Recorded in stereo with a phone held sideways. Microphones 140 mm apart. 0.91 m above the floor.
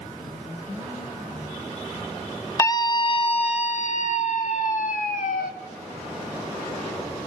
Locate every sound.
2.6 s a scream: 25° left (ahead or behind), 1.0 m; by 5.5 s 75° left (ahead or behind), 2 m